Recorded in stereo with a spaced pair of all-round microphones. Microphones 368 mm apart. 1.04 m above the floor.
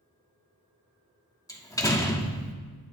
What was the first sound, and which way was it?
A door slam, 10° left (ahead or behind).